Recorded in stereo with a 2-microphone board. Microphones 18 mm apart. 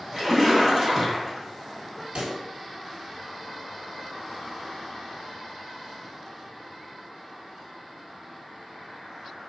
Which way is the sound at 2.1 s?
75° right (ahead or behind).